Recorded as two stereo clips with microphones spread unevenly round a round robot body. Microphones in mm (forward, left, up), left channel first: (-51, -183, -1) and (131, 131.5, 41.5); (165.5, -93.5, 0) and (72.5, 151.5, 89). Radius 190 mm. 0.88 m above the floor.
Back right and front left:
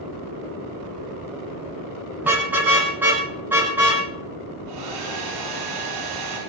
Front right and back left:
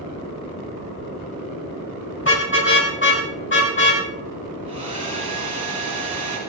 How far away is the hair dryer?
About 9.5 m.